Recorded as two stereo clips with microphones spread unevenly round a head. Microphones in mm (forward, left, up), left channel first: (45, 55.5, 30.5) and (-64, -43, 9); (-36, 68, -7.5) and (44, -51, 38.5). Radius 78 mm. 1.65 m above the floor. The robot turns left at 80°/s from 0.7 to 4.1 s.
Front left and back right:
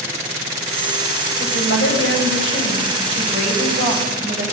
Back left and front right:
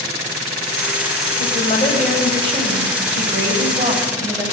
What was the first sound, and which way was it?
A woman speaking, 85° left.